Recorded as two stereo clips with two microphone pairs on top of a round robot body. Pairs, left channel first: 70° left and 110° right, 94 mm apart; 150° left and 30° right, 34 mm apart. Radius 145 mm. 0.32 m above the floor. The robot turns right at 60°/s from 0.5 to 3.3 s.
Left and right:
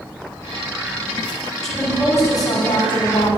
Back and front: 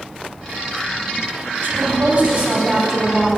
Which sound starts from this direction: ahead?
A woman speaking, at 1.6 s.